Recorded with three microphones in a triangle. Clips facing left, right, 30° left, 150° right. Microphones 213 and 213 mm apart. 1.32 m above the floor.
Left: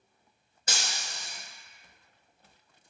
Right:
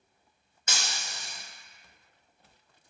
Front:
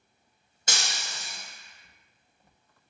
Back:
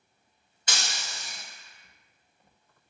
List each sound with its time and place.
0.7 s breaking glass: 50° left, 0.8 m